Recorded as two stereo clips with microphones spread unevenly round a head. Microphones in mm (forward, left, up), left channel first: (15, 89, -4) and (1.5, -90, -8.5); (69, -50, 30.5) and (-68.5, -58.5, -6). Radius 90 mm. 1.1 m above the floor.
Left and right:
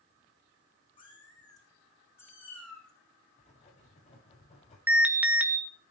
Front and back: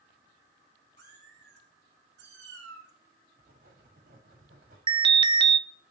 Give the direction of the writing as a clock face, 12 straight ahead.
7 o'clock.